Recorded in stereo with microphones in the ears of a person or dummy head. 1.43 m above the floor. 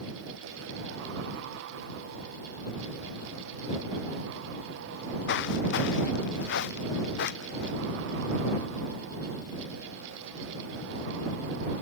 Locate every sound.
4.9 s footsteps: 65° left (ahead or behind)